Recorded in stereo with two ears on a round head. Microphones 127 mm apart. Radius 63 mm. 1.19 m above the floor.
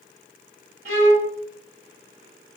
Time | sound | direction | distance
0.8 | a violin | 55° right (ahead or behind) | 1.4 m